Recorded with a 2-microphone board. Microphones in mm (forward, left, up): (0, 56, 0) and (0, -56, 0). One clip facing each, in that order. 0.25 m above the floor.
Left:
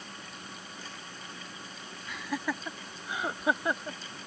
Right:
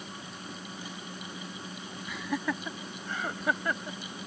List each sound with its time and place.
2.1 s laughter: centre (ahead or behind); by 4.0 s 20° left (ahead or behind)